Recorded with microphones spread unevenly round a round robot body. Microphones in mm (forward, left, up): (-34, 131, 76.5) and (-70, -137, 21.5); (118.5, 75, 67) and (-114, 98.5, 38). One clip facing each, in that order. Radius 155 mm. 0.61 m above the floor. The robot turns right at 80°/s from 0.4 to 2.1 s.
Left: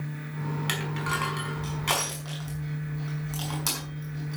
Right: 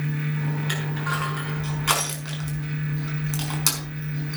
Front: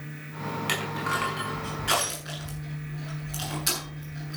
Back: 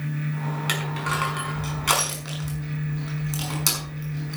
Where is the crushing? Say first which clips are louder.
Right 3 dB, back 2 dB; 100° left, 5.5 m; by 4.4 s 150° right, 5.5 m.